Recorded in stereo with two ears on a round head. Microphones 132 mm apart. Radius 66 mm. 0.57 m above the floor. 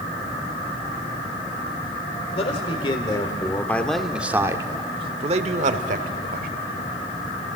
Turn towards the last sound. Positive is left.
turn(degrees=-65)  # may be behind; listen again after turning